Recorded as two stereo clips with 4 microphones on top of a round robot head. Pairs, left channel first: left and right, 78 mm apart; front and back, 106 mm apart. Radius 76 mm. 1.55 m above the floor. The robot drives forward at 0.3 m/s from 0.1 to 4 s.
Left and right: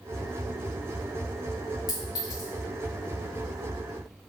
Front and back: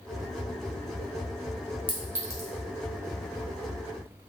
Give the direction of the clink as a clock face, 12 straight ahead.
8 o'clock.